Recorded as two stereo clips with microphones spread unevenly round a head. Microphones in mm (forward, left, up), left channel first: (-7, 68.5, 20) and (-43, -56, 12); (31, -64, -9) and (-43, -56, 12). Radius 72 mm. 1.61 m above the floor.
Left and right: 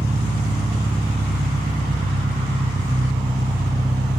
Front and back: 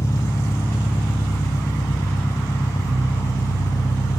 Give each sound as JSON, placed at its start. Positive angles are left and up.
{"t": 0.0, "sound": "an engine running", "azimuth_deg": -55, "distance_m": 1.3}